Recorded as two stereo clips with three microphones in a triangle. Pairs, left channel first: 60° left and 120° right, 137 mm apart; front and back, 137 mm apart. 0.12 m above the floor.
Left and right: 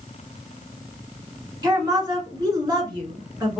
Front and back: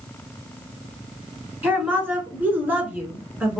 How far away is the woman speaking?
About 1.3 m.